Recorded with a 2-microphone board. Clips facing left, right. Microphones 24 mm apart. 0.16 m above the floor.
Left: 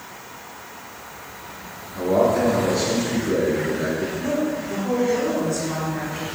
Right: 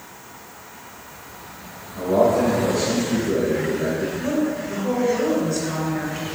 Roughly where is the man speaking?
Left.